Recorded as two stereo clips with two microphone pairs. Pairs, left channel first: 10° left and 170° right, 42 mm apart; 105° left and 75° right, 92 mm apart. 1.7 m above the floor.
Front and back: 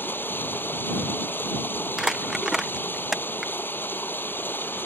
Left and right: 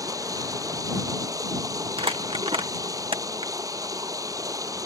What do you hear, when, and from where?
0.0 s running water: 20° right
2.0 s crumpling: 85° right